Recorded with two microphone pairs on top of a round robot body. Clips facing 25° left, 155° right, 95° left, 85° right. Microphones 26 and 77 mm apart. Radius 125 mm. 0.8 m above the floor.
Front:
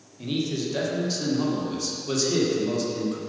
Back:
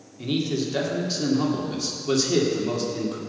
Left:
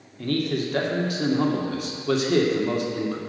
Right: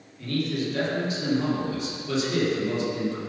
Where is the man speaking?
135° left, 2 m.